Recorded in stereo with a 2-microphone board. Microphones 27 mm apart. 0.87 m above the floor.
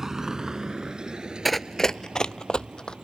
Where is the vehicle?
10° right (ahead or behind); by 3.0 s 35° right (ahead or behind).